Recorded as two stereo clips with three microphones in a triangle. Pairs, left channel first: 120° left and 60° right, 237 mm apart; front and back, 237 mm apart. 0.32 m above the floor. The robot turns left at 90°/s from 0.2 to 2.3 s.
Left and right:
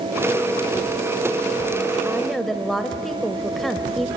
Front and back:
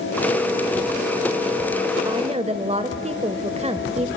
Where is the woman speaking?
130° right, 1.0 m; by 4.1 s 150° right, 1.0 m.